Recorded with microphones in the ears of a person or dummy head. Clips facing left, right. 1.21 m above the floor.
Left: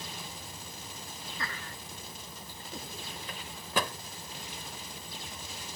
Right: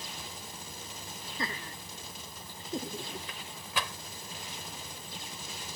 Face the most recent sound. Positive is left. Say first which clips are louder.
# left 5 dB
turn(degrees=40)  # may be behind; listen again after turning